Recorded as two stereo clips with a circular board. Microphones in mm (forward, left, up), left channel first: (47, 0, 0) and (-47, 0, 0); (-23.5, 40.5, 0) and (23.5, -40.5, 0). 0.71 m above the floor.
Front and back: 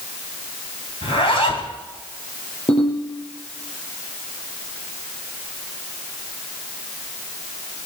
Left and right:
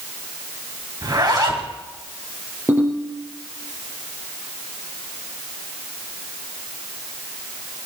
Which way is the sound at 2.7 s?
5° left.